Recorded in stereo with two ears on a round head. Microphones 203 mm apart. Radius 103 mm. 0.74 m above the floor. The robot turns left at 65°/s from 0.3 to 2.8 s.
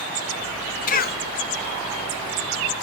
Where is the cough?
35° left (ahead or behind), 1.3 m; by 1.2 s 40° left (ahead or behind), 1.3 m.